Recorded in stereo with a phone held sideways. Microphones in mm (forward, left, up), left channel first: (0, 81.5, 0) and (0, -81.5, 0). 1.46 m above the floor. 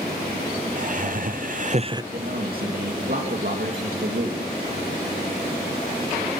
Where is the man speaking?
65° right (ahead or behind), 2.5 m.